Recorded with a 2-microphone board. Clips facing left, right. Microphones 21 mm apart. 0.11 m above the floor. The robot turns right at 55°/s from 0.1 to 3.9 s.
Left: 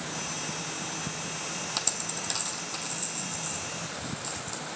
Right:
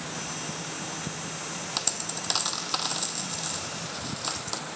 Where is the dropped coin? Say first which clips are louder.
Right 3 dB; 10° right (ahead or behind), 0.7 m; by 4.6 s 50° right (ahead or behind), 0.7 m.